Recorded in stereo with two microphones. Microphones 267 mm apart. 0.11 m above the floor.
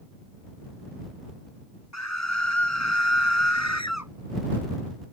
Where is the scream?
80° left.